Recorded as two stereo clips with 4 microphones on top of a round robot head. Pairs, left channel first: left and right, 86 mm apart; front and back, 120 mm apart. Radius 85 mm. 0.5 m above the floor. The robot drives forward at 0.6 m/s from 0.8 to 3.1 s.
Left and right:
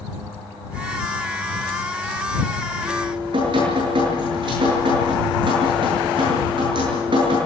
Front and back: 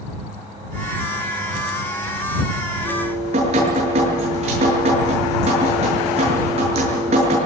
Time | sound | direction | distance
2.8 | dripping | 135° right | 8 m